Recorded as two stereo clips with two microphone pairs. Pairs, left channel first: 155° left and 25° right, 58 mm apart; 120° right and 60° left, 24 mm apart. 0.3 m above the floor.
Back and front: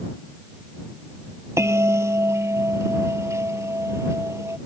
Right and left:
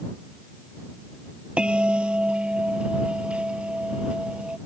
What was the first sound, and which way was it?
A bell, 15° left.